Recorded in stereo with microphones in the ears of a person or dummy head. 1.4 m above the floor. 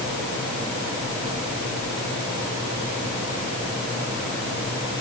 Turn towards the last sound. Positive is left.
No sound to turn to.